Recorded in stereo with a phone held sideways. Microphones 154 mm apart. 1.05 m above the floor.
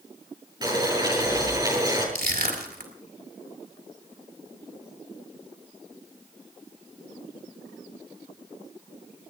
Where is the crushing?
85° right, 4 m.